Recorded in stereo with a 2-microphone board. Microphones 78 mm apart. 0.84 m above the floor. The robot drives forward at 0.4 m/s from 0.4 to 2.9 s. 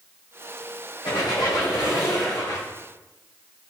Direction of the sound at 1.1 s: 70° left (ahead or behind).